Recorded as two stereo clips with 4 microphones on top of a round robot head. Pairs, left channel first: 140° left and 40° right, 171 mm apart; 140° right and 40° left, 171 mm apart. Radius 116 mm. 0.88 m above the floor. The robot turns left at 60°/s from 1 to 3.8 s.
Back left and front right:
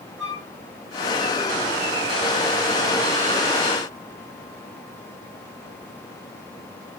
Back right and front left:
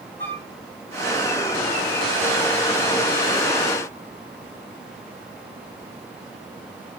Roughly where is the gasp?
I don't hear a gasp.